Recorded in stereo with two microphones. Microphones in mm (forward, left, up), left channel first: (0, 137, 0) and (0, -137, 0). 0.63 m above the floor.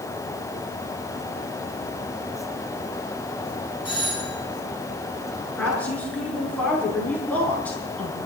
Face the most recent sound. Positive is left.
turn(degrees=5)  # may be behind; listen again after turning